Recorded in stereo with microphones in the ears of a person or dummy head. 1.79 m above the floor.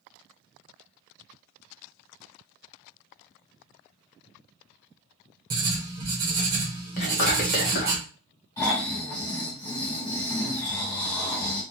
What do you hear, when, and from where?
5.5 s writing: 20° right (ahead or behind), 0.8 m
7.0 s whispering: 45° left (ahead or behind), 1.1 m
8.6 s snoring: 20° left (ahead or behind), 2.0 m